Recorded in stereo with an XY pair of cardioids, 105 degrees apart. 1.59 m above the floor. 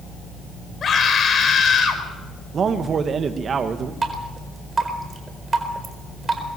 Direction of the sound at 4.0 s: 30° right.